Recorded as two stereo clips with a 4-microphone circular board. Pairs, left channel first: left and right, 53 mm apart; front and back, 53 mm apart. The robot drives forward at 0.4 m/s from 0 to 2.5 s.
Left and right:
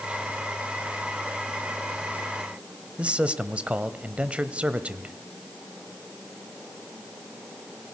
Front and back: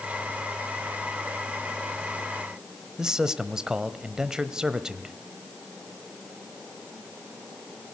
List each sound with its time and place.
3.0 s a man speaking: 120° right, 0.9 m